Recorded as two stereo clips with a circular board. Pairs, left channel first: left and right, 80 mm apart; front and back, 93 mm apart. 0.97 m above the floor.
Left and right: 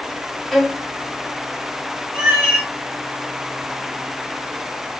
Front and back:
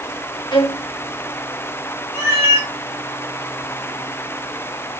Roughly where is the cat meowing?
Ahead.